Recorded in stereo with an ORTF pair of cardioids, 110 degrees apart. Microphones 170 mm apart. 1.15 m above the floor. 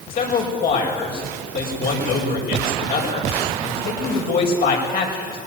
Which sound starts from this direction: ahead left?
A man speaking, at 0.1 s.